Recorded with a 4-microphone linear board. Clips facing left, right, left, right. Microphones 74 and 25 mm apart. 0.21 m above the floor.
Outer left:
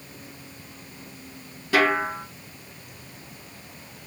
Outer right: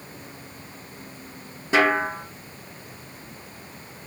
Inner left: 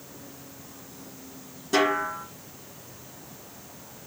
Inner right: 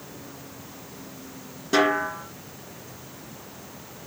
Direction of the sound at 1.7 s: 25° right (ahead or behind).